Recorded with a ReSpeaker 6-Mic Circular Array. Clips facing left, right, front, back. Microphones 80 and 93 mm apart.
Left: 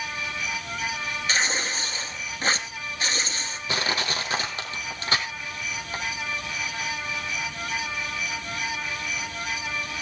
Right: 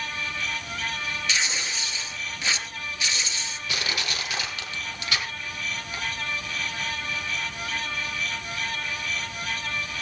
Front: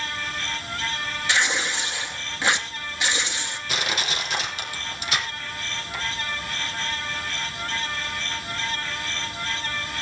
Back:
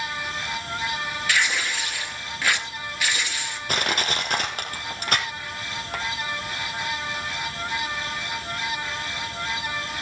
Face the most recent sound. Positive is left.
turn(degrees=145)